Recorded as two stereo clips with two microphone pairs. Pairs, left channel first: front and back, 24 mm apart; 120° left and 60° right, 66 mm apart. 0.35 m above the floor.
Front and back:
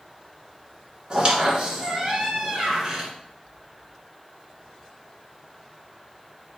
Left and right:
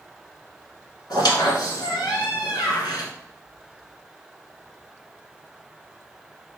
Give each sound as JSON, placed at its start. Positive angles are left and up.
{"t": 1.1, "sound": "a squeak", "azimuth_deg": 120, "distance_m": 1.4}